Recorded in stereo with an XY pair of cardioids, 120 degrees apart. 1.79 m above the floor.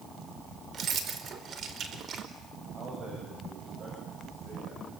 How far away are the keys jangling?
About 4 m.